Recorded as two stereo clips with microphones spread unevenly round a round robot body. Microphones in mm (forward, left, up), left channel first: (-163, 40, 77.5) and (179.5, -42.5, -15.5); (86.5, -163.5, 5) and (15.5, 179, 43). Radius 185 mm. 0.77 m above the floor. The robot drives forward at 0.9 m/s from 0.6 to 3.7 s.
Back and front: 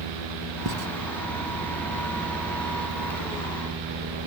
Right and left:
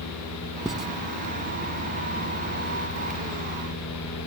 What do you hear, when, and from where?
0.7 s writing: 15° left